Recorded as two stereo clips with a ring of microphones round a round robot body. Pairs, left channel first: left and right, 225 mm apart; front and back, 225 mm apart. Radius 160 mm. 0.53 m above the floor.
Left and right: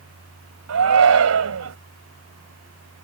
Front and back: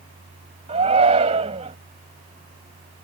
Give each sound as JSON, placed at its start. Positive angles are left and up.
{"t": 0.7, "sound": "a shout", "azimuth_deg": -110}